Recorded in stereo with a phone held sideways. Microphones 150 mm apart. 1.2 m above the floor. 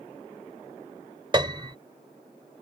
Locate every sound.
1.3 s a piano: 30° right (ahead or behind)